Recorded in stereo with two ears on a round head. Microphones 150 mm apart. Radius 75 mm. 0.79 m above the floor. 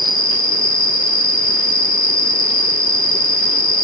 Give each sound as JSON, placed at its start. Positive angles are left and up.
{"t": 0.0, "sound": "an insect", "side_deg": 45}